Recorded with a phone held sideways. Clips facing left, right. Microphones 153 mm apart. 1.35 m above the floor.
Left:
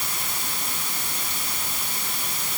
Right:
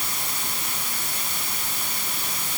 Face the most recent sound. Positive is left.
No sound to turn to.